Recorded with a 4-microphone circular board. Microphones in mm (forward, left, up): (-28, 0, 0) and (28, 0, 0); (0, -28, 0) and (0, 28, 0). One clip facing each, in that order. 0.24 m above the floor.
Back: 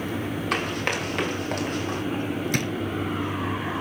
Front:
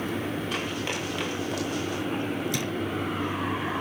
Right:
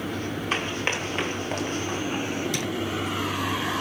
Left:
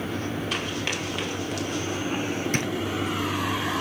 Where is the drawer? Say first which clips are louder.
Back 4 dB, left 2 dB; 140° left, 2.5 m.